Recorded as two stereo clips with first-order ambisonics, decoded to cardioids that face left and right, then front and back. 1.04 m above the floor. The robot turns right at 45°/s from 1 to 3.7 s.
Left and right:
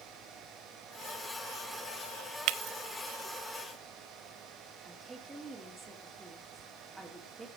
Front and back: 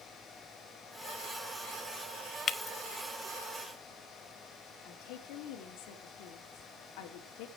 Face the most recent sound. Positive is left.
turn(degrees=-5)